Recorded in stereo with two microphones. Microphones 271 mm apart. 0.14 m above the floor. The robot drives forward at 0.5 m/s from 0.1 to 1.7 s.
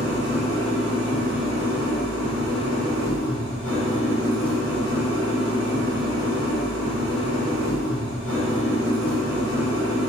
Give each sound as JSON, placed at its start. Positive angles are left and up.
{"t": 0.0, "sound": "an engine running", "side_deg": -65, "distance_m": 2.0}